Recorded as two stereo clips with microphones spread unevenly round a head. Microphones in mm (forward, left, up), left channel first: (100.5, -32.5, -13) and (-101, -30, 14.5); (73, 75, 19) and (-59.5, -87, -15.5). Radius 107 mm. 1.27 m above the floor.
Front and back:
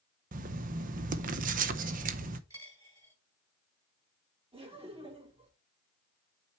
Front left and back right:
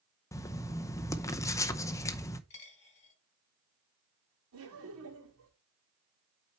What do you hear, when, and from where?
0.3 s writing: 125° left, 0.6 m
2.5 s a dropped coin: 105° left, 3 m
4.5 s laughter: 115° right, 3.5 m